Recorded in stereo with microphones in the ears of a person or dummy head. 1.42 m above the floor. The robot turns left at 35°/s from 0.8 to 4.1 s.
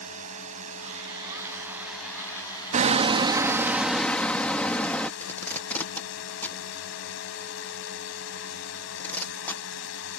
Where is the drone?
135° right; by 10.2 s 110° left.